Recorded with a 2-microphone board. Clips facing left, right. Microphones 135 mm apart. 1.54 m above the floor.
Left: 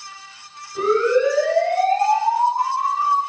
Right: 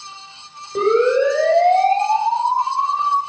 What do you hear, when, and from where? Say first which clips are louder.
0.8 s a siren: right 2 dB; 70° right (ahead or behind), 8 m; by 3.2 s 85° right, 6.5 m